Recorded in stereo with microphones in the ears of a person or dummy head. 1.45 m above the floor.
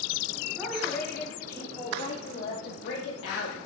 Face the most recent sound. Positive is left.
turn(degrees=85)